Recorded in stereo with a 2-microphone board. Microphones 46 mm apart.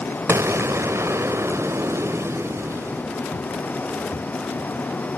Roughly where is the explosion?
Right.